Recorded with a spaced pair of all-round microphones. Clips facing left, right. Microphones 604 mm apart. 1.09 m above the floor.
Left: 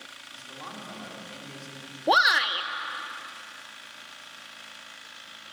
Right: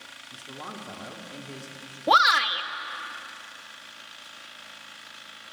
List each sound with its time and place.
0.3 s a man speaking: 70° right (ahead or behind), 3 m
2.1 s a shout: 35° right (ahead or behind), 0.7 m